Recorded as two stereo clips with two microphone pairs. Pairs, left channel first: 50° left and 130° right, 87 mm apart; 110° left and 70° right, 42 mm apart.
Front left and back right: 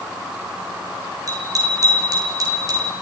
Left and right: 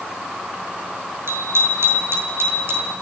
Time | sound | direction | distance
1.3 | a bicycle bell | 85° right | 7 m